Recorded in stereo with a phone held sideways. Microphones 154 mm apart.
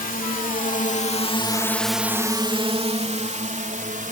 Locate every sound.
0.0 s a drone: 70° left (ahead or behind); by 4.1 s 60° right (ahead or behind)